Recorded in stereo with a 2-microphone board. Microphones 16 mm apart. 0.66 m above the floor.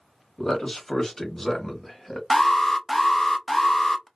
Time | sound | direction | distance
0.4 | a man speaking | 35° left (ahead or behind) | 1.4 m
2.3 | an alarm | 10° left (ahead or behind) | 0.7 m